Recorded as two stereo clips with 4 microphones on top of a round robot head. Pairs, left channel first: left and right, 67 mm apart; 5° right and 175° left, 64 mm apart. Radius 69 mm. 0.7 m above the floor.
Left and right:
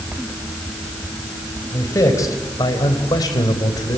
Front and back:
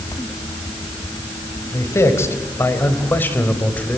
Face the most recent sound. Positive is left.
turn(degrees=65)